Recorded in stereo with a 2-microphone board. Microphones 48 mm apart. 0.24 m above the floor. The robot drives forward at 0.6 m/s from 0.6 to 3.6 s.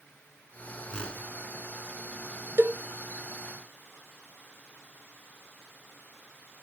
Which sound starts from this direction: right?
A cowbell, at 2.6 s.